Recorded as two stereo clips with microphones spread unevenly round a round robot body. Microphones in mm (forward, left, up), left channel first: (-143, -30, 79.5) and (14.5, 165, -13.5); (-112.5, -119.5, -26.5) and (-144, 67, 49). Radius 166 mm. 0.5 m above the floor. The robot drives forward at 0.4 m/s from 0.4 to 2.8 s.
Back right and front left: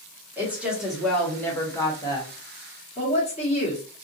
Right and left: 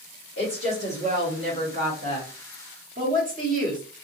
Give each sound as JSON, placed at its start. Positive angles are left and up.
{"t": 0.4, "sound": "a woman speaking", "azimuth_deg": 30, "distance_m": 1.2}